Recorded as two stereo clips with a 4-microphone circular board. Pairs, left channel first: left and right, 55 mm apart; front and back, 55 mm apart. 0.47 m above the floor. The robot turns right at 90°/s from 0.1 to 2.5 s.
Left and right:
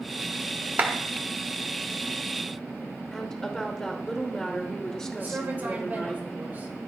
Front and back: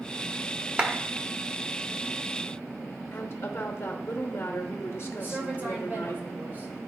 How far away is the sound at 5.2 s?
About 2 m.